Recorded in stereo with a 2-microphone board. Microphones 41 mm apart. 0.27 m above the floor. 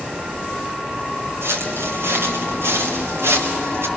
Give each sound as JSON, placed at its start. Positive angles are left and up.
{"t": 1.4, "sound": "footsteps", "side_deg": -70, "distance_m": 5.5}